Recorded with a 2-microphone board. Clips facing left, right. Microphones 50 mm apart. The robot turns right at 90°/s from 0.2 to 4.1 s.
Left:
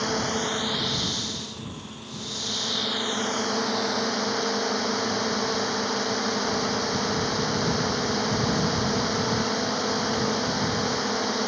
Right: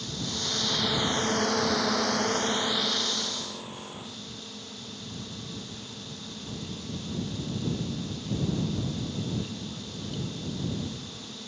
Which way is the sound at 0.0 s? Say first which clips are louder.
Left 9 dB; 120° left.